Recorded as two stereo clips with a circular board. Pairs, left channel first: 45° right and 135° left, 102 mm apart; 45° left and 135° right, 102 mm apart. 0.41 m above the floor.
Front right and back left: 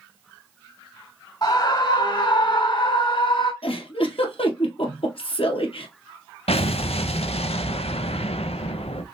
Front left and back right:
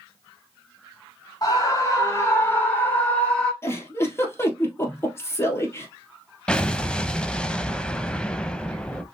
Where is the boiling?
I don't hear boiling.